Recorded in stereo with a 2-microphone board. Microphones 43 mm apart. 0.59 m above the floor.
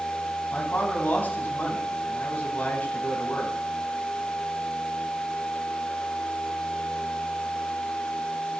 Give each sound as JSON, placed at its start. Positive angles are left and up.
{"t": 0.5, "sound": "a man speaking", "side_deg": 40, "distance_m": 4.0}